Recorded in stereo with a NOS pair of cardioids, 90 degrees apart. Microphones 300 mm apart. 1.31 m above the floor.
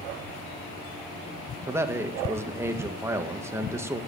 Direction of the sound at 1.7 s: 10° right.